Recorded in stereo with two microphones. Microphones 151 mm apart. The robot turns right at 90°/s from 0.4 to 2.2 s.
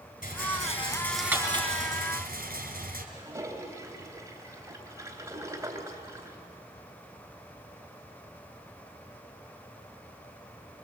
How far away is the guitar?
I don't hear a guitar.